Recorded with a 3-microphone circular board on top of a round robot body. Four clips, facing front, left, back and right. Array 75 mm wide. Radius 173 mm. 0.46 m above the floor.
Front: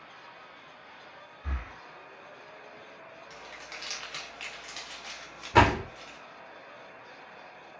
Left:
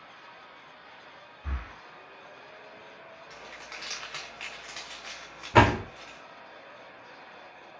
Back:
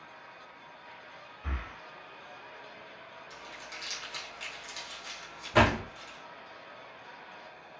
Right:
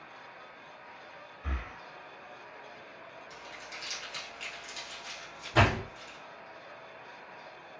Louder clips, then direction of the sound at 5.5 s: Left 6 dB, front 3 dB; 75° left.